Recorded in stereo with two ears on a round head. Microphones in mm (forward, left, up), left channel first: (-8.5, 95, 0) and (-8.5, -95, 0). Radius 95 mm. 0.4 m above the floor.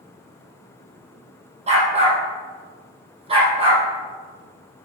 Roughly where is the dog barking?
Right.